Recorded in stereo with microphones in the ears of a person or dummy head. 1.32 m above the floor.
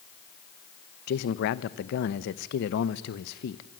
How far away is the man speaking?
About 0.9 m.